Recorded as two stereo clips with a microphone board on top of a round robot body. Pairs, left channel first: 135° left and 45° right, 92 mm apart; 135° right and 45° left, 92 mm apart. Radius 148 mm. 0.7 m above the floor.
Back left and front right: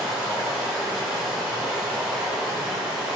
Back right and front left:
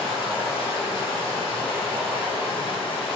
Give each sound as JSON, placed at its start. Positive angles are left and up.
{"t": 0.0, "sound": "running water", "azimuth_deg": -135, "distance_m": 1.6}